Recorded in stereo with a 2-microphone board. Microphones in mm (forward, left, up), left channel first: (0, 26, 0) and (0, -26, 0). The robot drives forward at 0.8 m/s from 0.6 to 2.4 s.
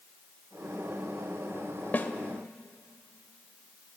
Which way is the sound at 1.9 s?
35° left (ahead or behind).